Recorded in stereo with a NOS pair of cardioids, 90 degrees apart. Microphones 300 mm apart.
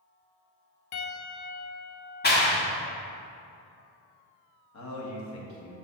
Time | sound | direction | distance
0.9 | a piano | 65° left | 1.0 m
2.2 | a clap | 35° left | 1.5 m
4.7 | a man speaking | 65° left | 1.8 m